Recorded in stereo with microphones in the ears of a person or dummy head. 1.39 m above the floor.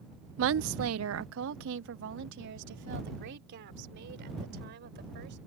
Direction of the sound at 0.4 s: 65° right (ahead or behind).